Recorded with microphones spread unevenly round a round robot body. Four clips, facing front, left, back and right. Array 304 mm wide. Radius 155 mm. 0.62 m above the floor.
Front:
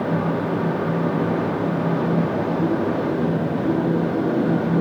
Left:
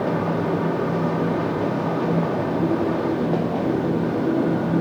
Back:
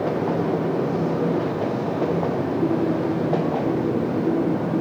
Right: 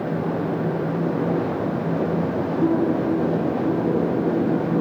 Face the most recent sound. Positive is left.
No sound to turn to.